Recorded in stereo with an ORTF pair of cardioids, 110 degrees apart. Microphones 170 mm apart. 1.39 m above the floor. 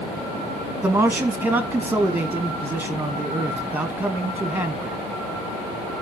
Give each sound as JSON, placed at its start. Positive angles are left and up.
{"t": 0.8, "sound": "a man speaking", "azimuth_deg": -10, "distance_m": 1.7}